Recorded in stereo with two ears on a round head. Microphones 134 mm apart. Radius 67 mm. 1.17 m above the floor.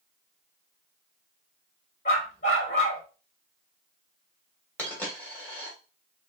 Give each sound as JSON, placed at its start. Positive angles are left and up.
{"t": 2.0, "sound": "a dog barking", "side_deg": 50, "distance_m": 2.0}
{"t": 4.8, "sound": "a dropped coin", "side_deg": 10, "distance_m": 1.8}